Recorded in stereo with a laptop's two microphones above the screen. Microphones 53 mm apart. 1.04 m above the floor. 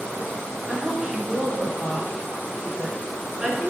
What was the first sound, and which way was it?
A woman speaking, 20° right (ahead or behind).